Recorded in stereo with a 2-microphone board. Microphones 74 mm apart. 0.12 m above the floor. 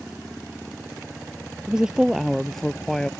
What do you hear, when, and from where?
1.7 s a woman speaking: 10° right (ahead or behind); by 3.1 s 10° left (ahead or behind)